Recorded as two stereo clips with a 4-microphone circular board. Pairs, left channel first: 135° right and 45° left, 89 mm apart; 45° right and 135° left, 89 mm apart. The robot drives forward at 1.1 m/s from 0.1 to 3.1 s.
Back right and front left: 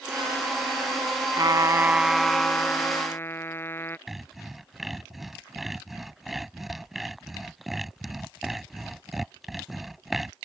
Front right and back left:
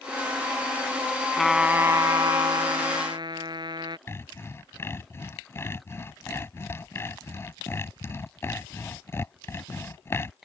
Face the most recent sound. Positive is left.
turn(degrees=-40)